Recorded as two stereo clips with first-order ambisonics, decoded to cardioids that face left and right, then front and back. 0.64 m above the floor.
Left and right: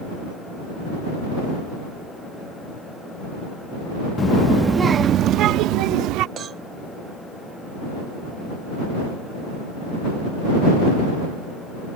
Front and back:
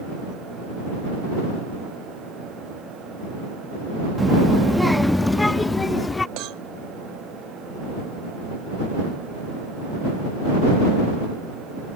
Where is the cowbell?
150° right.